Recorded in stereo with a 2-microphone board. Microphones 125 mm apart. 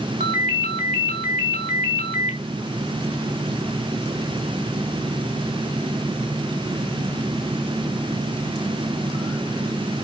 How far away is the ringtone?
About 2.5 m.